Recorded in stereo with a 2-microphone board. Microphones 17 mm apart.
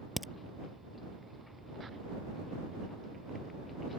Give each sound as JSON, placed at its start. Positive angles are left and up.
{"t": 0.2, "sound": "a crack", "side_deg": -5}